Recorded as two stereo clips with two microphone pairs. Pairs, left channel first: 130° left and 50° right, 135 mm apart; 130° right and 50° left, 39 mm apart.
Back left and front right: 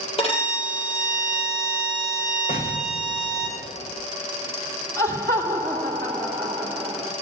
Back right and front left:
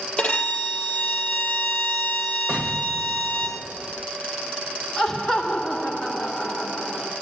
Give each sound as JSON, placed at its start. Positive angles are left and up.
{"t": 0.2, "sound": "a violin", "azimuth_deg": 165, "distance_m": 2.5}
{"t": 2.5, "sound": "an explosion", "azimuth_deg": 120, "distance_m": 1.4}
{"t": 5.0, "sound": "laughter", "azimuth_deg": 160, "distance_m": 1.4}